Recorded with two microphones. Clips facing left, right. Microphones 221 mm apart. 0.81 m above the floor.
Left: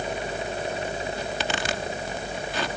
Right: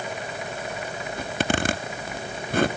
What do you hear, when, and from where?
1.2 s a zipper: 55° right (ahead or behind), 1.5 m